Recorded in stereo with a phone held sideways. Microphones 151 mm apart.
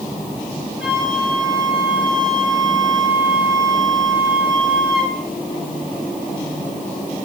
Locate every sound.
0.8 s a flute: centre (ahead or behind), 7 m